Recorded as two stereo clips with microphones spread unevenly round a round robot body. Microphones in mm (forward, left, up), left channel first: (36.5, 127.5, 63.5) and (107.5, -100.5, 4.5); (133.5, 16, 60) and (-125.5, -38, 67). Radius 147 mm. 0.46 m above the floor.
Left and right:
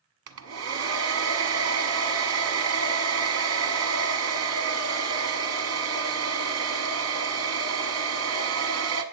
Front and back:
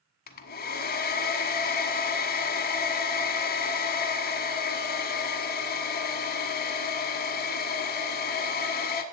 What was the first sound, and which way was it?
A hair dryer, 45° right.